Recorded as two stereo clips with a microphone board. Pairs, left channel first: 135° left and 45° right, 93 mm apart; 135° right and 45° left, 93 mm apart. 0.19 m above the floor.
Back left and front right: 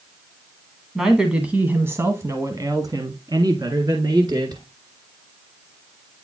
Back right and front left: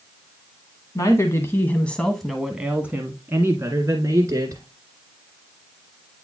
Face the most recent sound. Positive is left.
turn(degrees=-5)